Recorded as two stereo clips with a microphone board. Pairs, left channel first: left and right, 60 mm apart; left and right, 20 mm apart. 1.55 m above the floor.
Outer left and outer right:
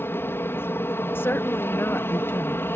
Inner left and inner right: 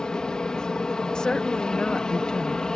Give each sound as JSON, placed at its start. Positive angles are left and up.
{"t": 0.0, "sound": "an aircraft", "side_deg": 40}
{"t": 1.1, "sound": "a woman speaking", "side_deg": 40}